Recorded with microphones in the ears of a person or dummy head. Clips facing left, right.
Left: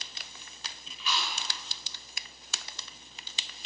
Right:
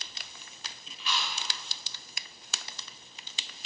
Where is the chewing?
65° left (ahead or behind), 1.6 m.